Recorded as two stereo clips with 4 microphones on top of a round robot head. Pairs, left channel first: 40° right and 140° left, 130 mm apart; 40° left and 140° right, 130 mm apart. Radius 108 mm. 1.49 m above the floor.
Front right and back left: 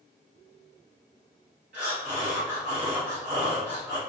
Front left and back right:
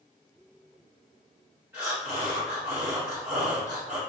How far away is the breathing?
About 1.1 m.